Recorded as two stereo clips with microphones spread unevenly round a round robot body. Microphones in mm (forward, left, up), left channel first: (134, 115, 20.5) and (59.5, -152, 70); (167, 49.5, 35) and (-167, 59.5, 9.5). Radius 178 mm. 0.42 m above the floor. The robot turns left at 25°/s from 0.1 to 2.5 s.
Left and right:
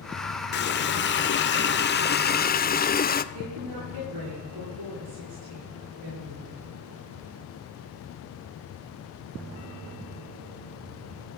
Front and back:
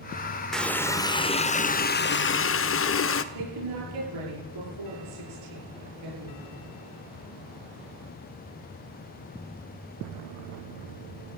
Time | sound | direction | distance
0.5 | a running tap | 90° left | 0.9 m
3.3 | a woman speaking | 155° right | 9 m